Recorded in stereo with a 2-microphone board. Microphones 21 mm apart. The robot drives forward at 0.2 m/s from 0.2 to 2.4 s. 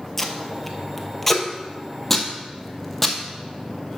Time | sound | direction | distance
0.2 | tape being pulled | 10° left (ahead or behind) | 0.9 m